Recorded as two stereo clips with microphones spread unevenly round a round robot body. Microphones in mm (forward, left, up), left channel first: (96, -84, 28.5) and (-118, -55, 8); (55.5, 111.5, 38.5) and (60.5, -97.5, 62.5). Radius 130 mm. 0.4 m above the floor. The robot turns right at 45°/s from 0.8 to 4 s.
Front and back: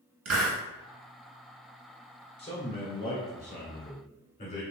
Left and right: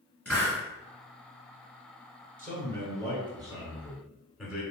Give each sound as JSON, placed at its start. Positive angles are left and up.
{"t": 0.2, "sound": "a hiss", "azimuth_deg": 175, "distance_m": 1.4}
{"t": 2.4, "sound": "a man speaking", "azimuth_deg": -70, "distance_m": 1.6}